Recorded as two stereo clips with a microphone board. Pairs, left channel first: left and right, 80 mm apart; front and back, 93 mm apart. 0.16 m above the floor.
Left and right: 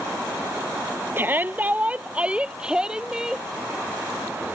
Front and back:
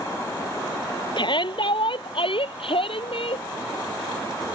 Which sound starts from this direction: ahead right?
A shout, at 1.2 s.